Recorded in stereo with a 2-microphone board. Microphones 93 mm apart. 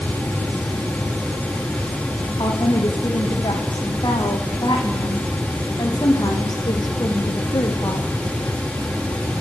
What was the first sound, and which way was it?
A woman speaking, 55° left (ahead or behind).